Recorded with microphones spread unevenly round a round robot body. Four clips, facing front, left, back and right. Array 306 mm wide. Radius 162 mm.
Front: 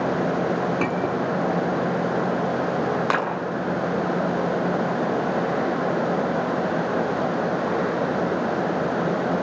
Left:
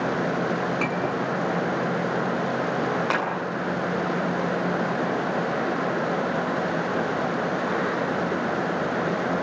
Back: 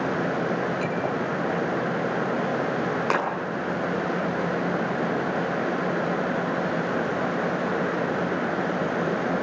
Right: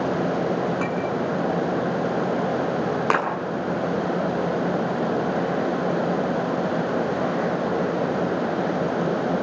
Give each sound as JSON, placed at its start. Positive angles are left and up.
{"t": 0.8, "sound": "a clink", "azimuth_deg": -15, "distance_m": 6.5}
{"t": 3.1, "sound": "a clap", "azimuth_deg": -60, "distance_m": 10.0}